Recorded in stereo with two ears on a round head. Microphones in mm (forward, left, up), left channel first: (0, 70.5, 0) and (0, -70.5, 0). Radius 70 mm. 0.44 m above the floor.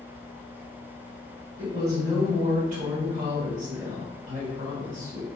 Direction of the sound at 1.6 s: 50° right (ahead or behind).